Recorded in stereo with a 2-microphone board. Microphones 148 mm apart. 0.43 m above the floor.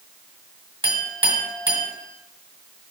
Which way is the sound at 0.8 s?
35° right (ahead or behind).